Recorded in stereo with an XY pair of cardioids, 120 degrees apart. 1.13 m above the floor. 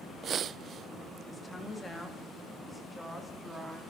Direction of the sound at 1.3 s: 20° left.